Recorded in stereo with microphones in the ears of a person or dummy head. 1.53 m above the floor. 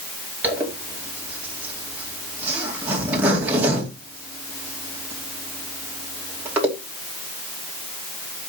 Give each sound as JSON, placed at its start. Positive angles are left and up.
{"t": 0.4, "sound": "a zipper", "side_deg": -15, "distance_m": 2.0}